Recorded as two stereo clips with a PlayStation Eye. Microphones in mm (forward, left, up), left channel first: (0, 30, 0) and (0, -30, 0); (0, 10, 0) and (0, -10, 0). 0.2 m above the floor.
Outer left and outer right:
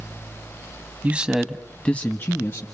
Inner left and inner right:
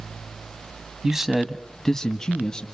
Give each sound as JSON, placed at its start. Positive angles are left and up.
{"t": 1.0, "sound": "a man speaking", "side_deg": -25, "distance_m": 1.3}